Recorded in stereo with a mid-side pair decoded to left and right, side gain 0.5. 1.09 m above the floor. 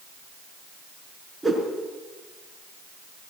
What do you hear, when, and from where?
1.4 s a whoosh: 5° right, 4.5 m